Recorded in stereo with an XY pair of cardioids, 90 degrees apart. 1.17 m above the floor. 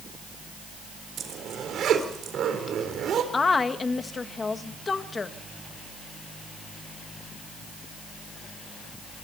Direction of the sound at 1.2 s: 70° right.